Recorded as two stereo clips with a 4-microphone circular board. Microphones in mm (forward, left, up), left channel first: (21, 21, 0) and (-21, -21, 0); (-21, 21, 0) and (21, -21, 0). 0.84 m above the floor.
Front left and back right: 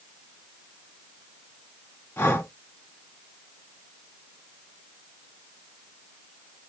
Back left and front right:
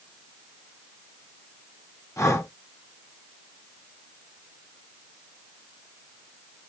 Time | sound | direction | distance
2.2 | breathing | 100° left | 1.7 m